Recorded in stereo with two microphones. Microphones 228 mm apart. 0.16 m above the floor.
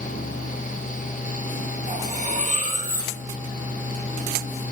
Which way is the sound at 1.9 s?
30° right (ahead or behind).